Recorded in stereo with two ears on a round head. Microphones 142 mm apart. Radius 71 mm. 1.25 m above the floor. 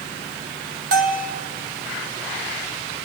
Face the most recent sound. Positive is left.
turn(degrees=-60)  # may be behind; listen again after turning